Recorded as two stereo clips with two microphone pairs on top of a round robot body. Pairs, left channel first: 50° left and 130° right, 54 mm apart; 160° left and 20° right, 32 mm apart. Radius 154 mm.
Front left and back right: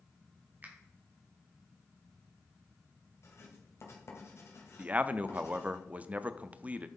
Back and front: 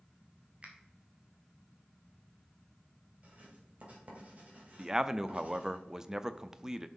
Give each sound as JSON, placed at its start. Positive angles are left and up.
{"t": 0.6, "sound": "a finger snap", "azimuth_deg": -70, "distance_m": 2.0}
{"t": 3.2, "sound": "writing", "azimuth_deg": 25, "distance_m": 2.5}
{"t": 4.8, "sound": "a man speaking", "azimuth_deg": -60, "distance_m": 0.8}